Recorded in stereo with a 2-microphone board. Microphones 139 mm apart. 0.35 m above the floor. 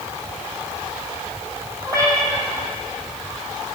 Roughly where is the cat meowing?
Right.